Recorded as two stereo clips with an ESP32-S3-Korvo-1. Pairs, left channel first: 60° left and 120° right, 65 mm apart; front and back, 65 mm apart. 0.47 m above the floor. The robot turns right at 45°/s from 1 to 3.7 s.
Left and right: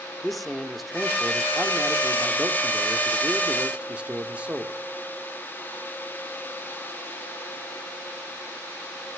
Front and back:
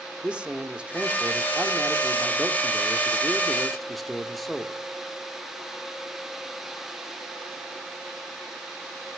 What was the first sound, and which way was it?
A man speaking, 150° left.